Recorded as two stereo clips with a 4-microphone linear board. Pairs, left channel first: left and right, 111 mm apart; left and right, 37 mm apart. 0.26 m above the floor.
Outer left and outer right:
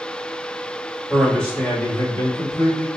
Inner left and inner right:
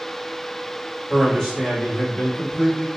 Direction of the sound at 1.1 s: 5° left (ahead or behind).